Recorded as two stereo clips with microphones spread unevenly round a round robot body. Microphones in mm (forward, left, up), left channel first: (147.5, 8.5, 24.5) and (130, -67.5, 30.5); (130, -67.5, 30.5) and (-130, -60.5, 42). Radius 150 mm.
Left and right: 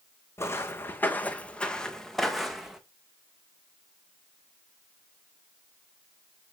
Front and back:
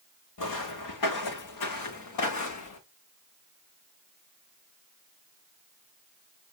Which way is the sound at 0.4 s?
20° left.